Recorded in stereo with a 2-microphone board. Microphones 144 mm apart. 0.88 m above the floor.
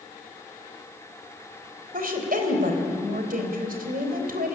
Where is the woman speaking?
85° right, 3.5 m.